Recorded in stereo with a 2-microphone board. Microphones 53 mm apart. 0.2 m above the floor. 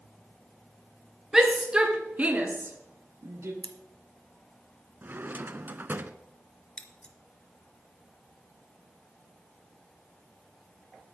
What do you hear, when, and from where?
1.3 s a shout: 10° right (ahead or behind), 2.5 m; by 3.5 s 55° right (ahead or behind), 2 m
3.6 s scissors: 30° left (ahead or behind), 1.3 m
5.0 s a drawer: 35° right (ahead or behind), 0.7 m
6.8 s scissors: 20° left (ahead or behind), 1.3 m